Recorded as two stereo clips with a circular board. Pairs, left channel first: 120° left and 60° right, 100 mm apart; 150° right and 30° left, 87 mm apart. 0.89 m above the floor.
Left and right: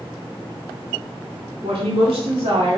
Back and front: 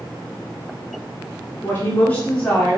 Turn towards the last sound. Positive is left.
turn(degrees=-60)